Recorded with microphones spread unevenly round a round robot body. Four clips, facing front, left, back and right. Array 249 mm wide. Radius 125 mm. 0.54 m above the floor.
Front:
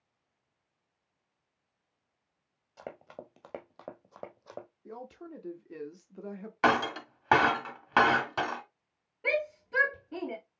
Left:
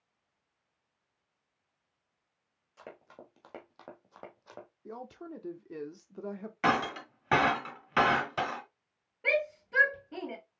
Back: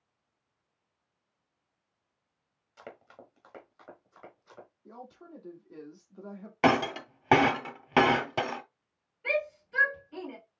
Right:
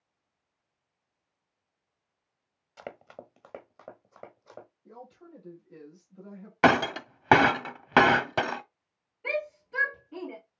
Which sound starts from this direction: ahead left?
A shout, at 9.2 s.